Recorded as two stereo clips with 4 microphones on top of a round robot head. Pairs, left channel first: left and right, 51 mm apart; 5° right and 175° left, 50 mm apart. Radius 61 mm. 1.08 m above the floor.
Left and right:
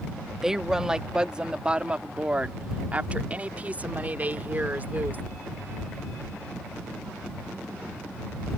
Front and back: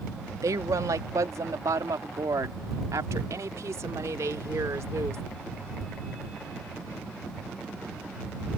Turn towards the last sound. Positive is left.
turn(degrees=-145)